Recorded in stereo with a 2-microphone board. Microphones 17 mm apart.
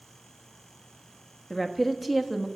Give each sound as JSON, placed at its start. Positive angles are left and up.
{"t": 1.5, "sound": "a woman speaking", "side_deg": 5, "distance_m": 1.1}